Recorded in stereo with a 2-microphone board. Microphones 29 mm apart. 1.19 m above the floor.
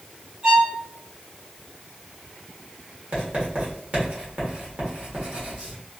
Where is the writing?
50° right (ahead or behind), 1.4 m.